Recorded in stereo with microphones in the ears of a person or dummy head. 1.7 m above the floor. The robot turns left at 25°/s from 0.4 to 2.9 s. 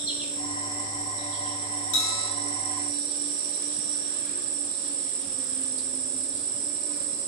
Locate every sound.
0.0 s an insect: 10° right, 0.9 m; by 7.3 s 70° right, 0.9 m
1.9 s a bell: 60° left (ahead or behind), 0.7 m; by 2.3 s 70° left (ahead or behind), 0.7 m